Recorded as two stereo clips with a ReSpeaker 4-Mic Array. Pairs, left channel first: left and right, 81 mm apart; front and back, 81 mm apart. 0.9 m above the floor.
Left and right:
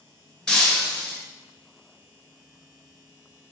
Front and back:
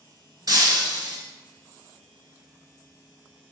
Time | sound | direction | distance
0.5 | breaking glass | 175° left | 1.2 m